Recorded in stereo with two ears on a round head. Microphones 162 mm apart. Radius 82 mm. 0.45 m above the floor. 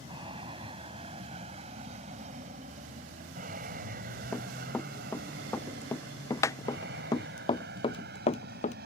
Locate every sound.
0.0 s an aircraft: 25° right (ahead or behind); by 8.9 s 60° right (ahead or behind)
4.3 s running footsteps: 5° left (ahead or behind); by 8.8 s 40° left (ahead or behind)